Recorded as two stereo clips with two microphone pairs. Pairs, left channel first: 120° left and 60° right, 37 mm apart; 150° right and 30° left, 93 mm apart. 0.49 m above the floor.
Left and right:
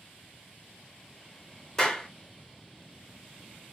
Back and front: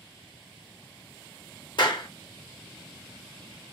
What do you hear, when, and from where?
1.8 s a clap: 165° right, 1.0 m